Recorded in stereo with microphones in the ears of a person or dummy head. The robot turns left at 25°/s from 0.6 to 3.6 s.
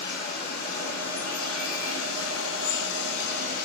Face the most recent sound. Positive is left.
turn(degrees=55)